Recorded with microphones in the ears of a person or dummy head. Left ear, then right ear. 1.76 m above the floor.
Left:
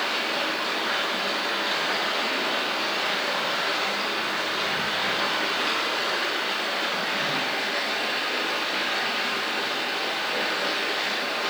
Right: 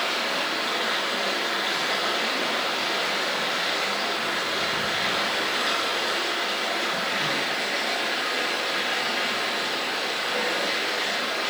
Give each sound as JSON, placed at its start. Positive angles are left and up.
{"t": 0.0, "sound": "running water", "side_deg": 0, "distance_m": 1.8}